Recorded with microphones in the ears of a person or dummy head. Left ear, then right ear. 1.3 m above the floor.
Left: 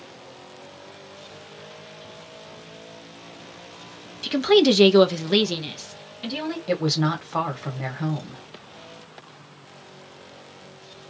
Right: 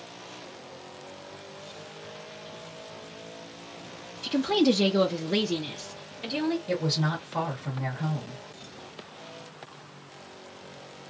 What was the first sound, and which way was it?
A woman speaking, 30° left (ahead or behind).